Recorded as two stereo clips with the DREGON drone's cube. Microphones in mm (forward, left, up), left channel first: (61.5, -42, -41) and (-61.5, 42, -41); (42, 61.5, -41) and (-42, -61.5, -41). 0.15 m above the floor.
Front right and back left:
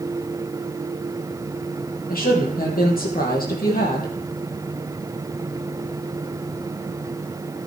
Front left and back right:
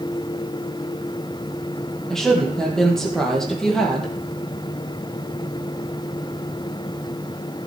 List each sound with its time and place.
2.1 s a woman speaking: 30° right, 3.5 m